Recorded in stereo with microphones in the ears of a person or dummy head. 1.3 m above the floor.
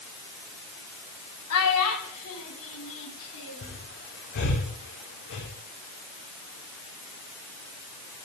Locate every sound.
1.5 s a child speaking: 85° left, 5.5 m; by 3.8 s 65° left (ahead or behind), 7.5 m
3.6 s breathing: 60° left (ahead or behind), 3 m